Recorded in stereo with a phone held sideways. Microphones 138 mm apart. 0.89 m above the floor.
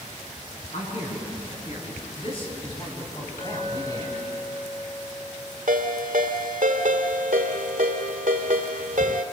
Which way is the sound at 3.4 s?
80° left.